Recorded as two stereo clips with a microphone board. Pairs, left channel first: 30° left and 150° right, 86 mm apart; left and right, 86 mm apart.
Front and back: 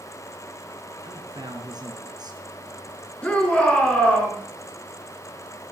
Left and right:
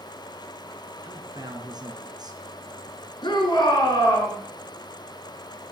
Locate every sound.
1.0 s a man speaking: 120° right, 3.5 m
3.2 s a shout: 105° left, 4 m